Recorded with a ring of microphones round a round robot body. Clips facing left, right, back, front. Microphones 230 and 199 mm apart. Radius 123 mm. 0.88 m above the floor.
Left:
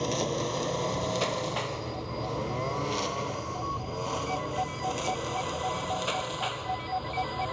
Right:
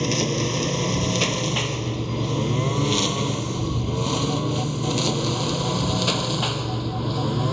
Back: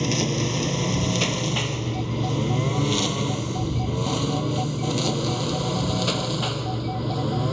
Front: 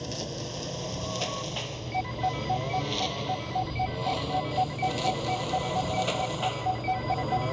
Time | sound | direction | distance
0.0 | a lawn mower | 145° right | ?